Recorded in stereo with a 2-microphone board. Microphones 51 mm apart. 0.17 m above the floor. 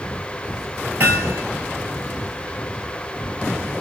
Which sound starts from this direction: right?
Hammering, at 1.0 s.